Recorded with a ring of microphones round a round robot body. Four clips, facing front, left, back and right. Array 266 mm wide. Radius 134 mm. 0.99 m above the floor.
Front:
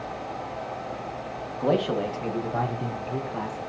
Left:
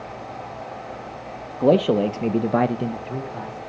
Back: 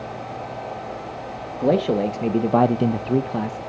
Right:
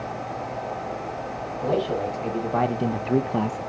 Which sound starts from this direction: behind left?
A man speaking, at 1.6 s.